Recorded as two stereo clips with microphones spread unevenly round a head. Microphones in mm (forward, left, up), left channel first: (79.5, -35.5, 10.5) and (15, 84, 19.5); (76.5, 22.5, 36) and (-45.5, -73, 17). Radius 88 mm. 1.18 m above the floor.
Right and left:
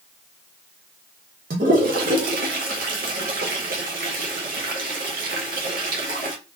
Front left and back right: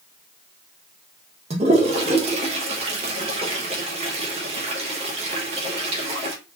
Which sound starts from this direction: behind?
A toilet flushing, at 1.5 s.